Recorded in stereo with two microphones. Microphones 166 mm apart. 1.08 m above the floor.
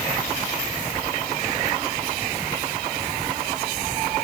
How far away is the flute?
No flute in this recording.